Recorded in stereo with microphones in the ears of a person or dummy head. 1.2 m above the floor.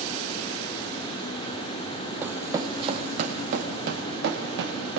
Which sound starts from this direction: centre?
Running footsteps, at 2.2 s.